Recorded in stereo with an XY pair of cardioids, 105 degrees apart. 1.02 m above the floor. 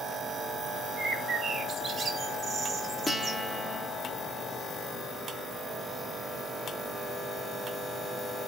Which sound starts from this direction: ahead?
A guitar, at 3.1 s.